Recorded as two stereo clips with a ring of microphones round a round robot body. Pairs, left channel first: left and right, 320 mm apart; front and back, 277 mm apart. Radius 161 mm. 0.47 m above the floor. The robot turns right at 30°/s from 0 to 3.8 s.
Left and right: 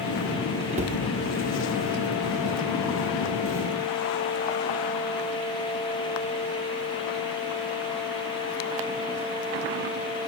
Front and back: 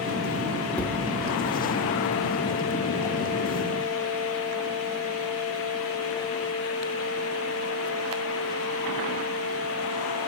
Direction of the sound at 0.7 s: 80° right.